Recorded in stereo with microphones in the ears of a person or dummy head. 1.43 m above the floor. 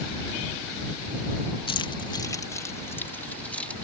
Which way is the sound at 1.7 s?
30° left (ahead or behind).